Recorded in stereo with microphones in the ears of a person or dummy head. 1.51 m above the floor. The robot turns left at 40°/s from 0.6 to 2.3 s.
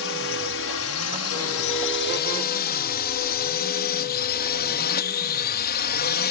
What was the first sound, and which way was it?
A drone, 55° left (ahead or behind).